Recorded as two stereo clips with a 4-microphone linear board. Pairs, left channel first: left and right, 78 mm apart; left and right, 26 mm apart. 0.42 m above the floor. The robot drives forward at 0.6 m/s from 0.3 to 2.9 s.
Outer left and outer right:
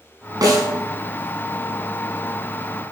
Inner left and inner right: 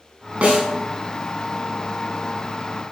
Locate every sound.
0.4 s a snare drum: 55° right (ahead or behind), 2.0 m; by 0.7 s 50° right (ahead or behind), 2 m